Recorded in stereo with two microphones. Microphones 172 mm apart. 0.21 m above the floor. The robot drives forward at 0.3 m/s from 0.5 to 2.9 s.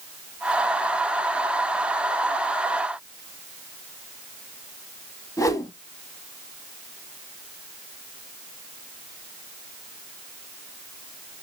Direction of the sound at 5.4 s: 20° left (ahead or behind).